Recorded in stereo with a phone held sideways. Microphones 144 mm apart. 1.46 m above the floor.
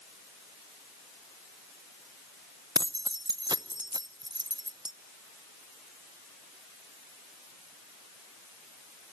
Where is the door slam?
No door slam in this recording.